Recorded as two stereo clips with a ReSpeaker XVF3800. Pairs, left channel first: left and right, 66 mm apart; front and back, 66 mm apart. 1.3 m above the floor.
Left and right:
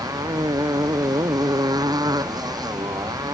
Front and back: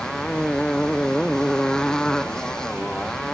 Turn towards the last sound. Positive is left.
turn(degrees=-80)